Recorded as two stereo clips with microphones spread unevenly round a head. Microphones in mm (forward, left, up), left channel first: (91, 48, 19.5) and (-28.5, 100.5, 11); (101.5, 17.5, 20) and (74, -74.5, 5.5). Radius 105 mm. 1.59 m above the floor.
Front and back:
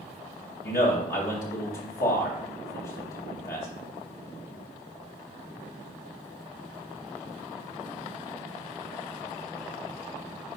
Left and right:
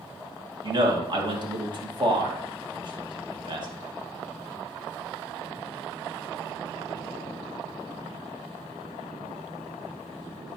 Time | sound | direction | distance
0.6 | a man speaking | 70° right | 1.9 m